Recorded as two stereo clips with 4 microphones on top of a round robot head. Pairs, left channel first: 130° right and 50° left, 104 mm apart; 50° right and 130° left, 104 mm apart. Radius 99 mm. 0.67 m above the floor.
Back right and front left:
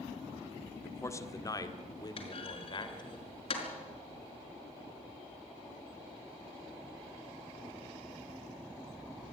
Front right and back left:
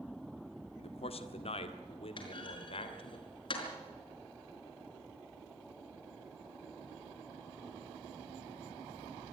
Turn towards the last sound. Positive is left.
turn(degrees=-95)